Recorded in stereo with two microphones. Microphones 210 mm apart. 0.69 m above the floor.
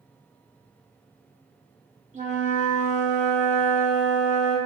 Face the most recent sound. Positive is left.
turn(degrees=-35)  # may be behind; listen again after turning